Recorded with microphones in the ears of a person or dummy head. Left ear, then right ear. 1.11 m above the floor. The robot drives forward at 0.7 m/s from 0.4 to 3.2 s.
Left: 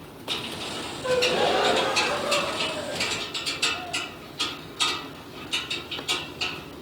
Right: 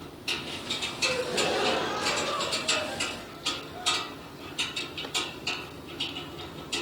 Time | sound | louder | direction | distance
1.0 | a gasp | left 6 dB | 25° left (ahead or behind) | 0.9 m